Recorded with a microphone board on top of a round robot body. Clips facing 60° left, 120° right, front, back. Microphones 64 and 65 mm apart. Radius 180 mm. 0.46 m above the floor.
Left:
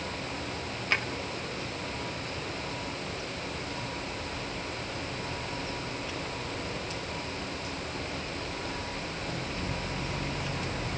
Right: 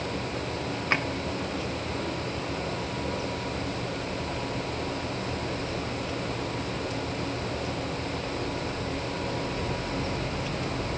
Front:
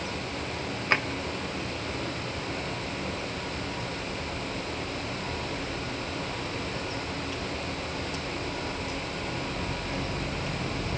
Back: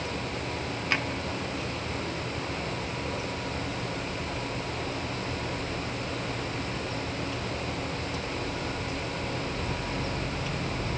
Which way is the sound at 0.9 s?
60° right.